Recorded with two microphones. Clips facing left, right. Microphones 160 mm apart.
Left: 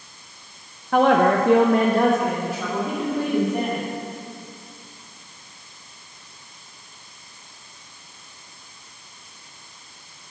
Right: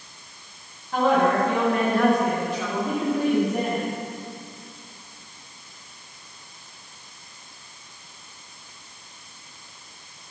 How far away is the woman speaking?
About 0.7 m.